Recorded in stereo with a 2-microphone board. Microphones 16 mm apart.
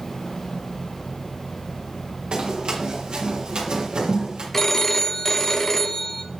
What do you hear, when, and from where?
2.3 s running footsteps: 90° right, 4 m; by 4.4 s 80° right, 6 m
4.5 s a phone ringing: 20° left (ahead or behind), 0.6 m